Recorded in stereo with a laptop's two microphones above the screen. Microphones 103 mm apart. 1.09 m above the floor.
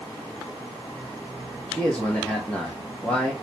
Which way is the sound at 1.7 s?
10° left (ahead or behind).